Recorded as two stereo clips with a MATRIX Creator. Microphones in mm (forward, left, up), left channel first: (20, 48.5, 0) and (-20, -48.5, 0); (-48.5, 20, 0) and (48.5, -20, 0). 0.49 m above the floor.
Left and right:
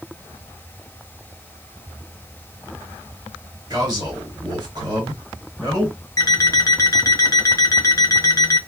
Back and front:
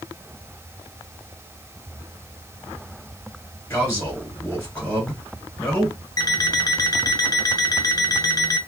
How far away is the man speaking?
About 1.8 m.